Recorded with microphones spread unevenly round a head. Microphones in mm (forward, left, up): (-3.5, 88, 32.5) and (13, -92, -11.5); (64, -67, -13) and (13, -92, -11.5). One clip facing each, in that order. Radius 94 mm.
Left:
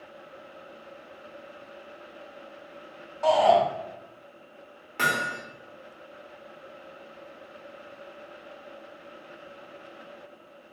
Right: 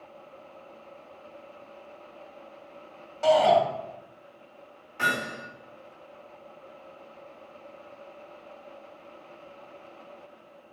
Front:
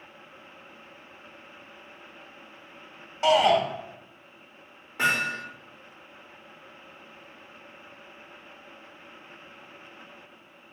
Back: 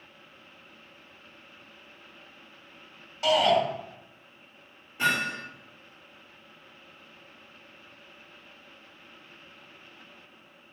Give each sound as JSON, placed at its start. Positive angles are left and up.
{"t": 3.2, "sound": "a shout", "azimuth_deg": -30, "distance_m": 3.0}
{"t": 5.0, "sound": "hammering", "azimuth_deg": 80, "distance_m": 3.5}